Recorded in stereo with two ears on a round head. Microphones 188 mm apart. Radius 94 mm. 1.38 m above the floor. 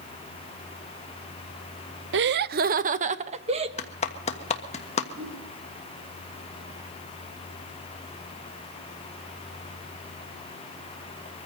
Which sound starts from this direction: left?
A clap, at 3.8 s.